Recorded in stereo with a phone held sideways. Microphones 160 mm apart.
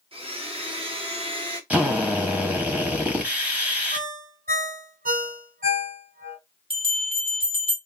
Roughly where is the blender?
Right.